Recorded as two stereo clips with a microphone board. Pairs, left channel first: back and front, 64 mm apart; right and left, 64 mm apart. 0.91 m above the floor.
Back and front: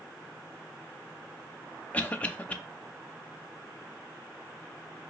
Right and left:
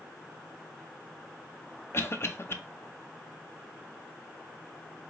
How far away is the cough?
About 0.6 m.